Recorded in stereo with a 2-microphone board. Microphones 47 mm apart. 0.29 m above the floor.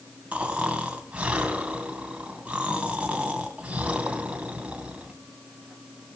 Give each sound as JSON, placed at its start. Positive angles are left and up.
{"t": 0.3, "sound": "snoring", "side_deg": -25, "distance_m": 2.5}